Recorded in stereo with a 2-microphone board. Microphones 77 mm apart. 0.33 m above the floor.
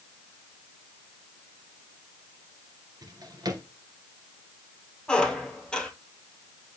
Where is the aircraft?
No aircraft in this recording.